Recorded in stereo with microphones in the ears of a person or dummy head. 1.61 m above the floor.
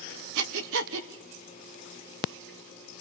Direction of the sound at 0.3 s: 75° right (ahead or behind).